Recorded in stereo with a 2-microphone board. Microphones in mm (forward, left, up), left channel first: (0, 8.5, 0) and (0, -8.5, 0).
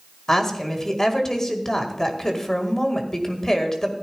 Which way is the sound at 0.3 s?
30° left (ahead or behind).